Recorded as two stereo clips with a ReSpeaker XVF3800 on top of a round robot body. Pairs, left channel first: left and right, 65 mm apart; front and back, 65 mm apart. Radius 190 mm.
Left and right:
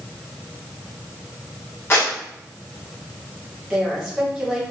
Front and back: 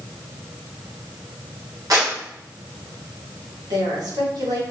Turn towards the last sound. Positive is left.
turn(degrees=180)